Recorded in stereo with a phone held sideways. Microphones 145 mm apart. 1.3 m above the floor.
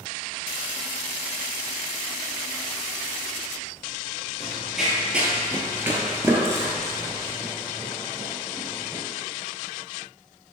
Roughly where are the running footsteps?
Centre.